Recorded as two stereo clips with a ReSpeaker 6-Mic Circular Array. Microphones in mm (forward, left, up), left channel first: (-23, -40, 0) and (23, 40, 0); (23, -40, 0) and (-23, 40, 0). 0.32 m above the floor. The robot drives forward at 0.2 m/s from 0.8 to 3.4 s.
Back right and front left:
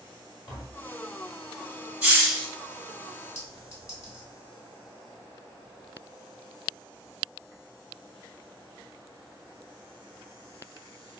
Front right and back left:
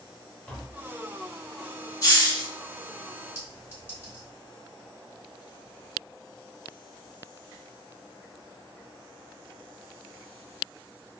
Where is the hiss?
20° right, 1.1 m.